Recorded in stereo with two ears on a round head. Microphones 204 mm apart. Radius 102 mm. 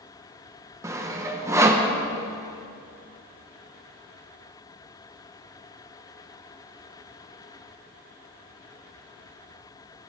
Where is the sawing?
15° right (ahead or behind), 1.0 m.